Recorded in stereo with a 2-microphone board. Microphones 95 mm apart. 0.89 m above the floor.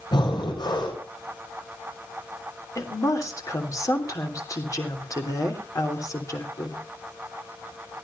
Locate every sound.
0.1 s breathing: 50° left (ahead or behind), 5 m
2.8 s a woman speaking: 35° left (ahead or behind), 3 m